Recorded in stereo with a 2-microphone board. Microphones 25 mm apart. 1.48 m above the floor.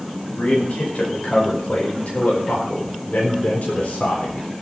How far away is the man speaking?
About 5 m.